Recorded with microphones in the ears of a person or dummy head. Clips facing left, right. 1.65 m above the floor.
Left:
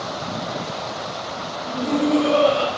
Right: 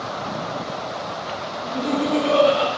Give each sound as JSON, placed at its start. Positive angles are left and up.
{"t": 1.6, "sound": "laughter", "side_deg": -35, "distance_m": 0.6}